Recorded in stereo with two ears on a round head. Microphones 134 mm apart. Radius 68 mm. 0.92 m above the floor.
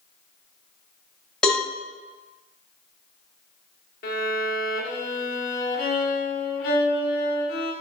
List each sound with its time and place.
1.4 s a cowbell: 5° left (ahead or behind), 1.0 m
4.0 s a violin: 70° left (ahead or behind), 0.9 m